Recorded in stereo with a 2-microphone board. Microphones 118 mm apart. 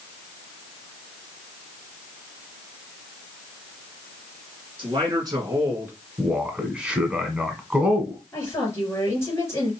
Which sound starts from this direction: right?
A man speaking, at 4.8 s.